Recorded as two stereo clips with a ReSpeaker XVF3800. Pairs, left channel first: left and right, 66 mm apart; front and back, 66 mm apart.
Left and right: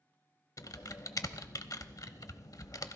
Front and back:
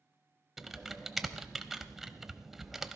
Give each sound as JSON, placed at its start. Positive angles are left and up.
{"t": 0.6, "sound": "typing on a keyboard", "azimuth_deg": 95, "distance_m": 0.7}